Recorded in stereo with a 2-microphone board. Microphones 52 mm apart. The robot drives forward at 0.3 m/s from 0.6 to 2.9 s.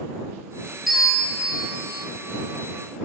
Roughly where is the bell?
Centre.